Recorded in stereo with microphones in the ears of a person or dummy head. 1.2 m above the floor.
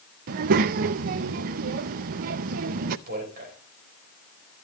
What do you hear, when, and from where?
0.3 s a child speaking: 55° right (ahead or behind), 0.6 m
3.1 s a man speaking: 50° right (ahead or behind), 6.5 m